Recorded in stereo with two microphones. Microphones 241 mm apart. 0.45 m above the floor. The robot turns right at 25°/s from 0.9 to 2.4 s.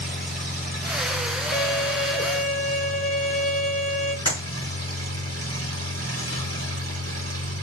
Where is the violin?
45° left (ahead or behind), 1.7 m; by 4.2 s 70° left (ahead or behind), 1.7 m.